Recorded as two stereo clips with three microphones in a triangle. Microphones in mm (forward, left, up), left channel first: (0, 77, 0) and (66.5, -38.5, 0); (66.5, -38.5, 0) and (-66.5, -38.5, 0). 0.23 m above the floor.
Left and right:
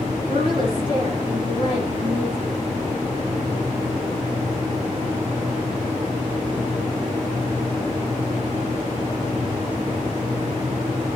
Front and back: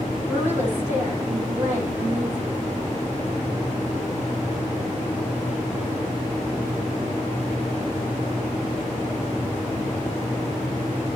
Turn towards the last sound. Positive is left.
turn(degrees=-105)